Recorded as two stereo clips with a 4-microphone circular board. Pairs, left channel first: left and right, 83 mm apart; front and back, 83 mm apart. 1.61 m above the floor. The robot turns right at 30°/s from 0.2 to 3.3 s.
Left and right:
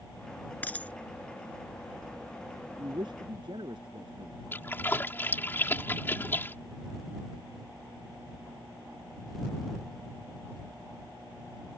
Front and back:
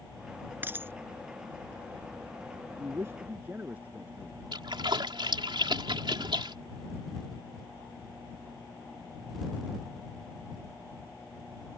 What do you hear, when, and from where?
0.6 s a dropped coin: 140° left; by 0.9 s 150° left
2.8 s a man speaking: 125° right; by 4.4 s 110° right
4.5 s a splash: 155° left